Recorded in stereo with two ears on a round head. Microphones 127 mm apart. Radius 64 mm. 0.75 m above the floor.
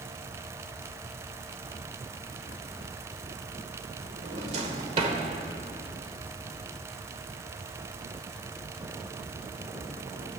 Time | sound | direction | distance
4.2 | a drawer | 50° right (ahead or behind) | 1.6 m